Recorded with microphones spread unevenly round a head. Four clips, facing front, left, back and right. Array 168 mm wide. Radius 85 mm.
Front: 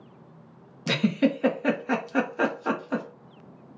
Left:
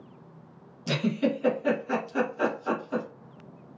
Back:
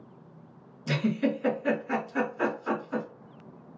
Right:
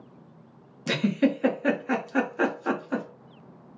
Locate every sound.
0.9 s a giggle: 25° right, 1.5 m